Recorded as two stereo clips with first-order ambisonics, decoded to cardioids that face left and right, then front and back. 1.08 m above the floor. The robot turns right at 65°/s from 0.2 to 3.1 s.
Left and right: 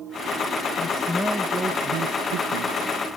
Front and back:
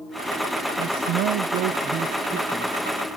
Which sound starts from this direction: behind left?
A man speaking, at 0.8 s.